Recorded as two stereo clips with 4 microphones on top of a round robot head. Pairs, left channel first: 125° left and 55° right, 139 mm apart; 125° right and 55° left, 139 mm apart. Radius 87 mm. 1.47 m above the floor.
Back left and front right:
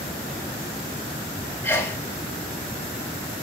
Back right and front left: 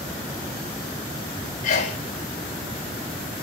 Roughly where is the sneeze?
Behind.